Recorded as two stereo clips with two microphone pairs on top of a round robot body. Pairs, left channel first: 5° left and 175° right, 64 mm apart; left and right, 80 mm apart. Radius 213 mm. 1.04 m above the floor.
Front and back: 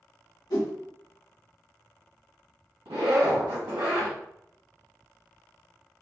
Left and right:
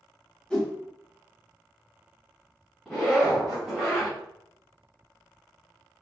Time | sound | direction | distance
0.5 | a whoosh | 10° left | 1.7 m
2.9 | a zipper | 175° right | 2.0 m